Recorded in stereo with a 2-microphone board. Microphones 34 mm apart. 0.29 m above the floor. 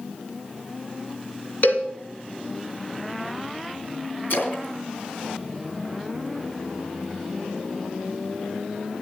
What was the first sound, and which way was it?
A cowbell, 60° left (ahead or behind).